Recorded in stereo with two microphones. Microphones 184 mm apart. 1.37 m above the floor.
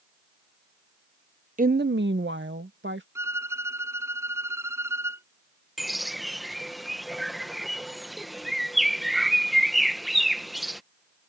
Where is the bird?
Centre (ahead or behind).